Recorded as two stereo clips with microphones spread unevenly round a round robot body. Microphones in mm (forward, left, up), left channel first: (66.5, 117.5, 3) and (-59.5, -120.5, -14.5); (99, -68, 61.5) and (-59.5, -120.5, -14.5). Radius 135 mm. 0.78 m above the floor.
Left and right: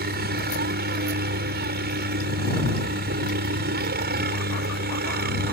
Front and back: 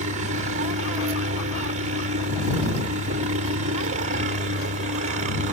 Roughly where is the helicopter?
Behind.